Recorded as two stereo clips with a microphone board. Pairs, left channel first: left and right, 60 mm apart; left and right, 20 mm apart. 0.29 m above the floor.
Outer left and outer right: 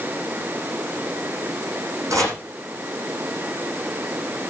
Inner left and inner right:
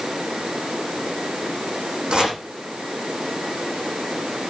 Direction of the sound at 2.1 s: 60° right (ahead or behind).